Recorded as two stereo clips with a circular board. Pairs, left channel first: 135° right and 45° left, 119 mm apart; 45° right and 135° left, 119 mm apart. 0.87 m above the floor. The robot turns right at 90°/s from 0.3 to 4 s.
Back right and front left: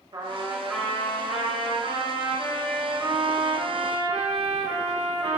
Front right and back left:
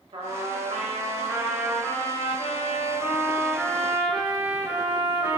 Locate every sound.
0.1 s a trumpet: 95° left, 1.6 m; by 5.4 s 70° left, 1.6 m